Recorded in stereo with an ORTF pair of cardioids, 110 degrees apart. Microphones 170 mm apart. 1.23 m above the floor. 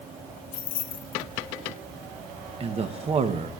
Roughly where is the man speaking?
Ahead right.